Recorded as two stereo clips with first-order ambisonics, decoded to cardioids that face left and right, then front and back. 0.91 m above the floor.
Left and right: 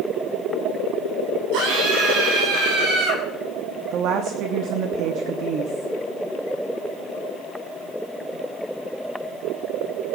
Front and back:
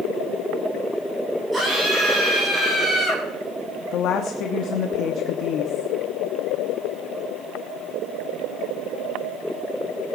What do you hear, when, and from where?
1.5 s a scream: 105° right, 8.5 m; by 3.2 s 100° right, 9.5 m
3.9 s a woman speaking: 45° right, 1.1 m